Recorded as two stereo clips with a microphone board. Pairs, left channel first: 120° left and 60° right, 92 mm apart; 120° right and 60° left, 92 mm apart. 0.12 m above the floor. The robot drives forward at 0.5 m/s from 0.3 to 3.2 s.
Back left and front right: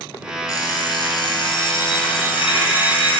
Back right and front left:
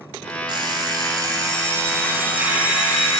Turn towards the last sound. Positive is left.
turn(degrees=145)